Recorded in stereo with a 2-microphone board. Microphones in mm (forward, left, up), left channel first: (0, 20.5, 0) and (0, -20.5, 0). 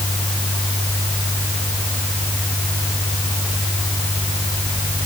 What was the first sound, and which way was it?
Only background noise.